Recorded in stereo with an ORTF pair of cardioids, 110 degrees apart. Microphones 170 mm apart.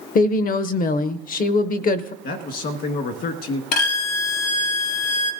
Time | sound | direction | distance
0.1 | a woman speaking | 55° left | 0.7 m
2.2 | a man speaking | 70° left | 1.5 m
3.7 | a violin | 65° left | 1.2 m